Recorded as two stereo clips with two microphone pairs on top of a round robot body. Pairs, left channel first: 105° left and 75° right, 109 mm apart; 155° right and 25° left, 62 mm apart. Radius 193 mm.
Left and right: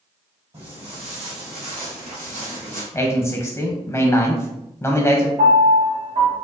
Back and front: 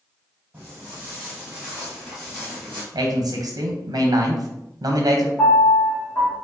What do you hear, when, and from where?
0.5 s footsteps: 30° right, 1.9 m; by 2.8 s 80° right, 1.0 m
2.9 s a man speaking: 30° left, 0.8 m
5.4 s a piano: 105° right, 0.9 m